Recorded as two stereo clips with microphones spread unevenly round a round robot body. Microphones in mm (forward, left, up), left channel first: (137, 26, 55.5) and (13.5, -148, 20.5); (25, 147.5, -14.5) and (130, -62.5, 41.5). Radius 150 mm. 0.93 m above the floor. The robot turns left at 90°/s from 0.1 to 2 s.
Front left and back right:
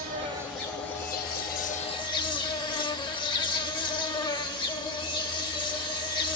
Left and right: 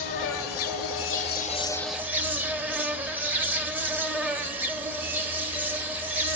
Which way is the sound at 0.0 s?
175° left.